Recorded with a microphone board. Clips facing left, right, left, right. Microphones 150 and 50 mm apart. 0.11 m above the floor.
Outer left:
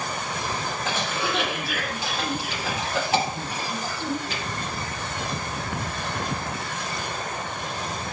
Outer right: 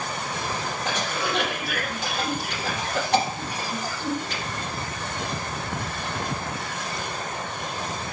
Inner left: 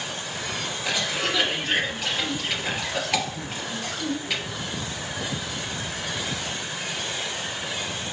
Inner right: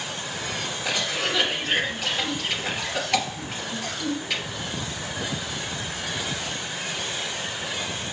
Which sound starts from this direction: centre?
A cough, at 0.8 s.